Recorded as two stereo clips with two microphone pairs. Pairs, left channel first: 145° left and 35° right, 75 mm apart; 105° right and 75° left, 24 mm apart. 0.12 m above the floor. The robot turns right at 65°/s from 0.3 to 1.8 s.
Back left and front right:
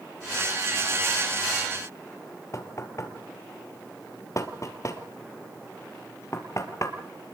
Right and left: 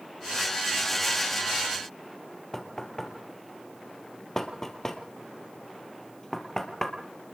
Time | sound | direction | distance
2.5 | knocking | 175° right | 2 m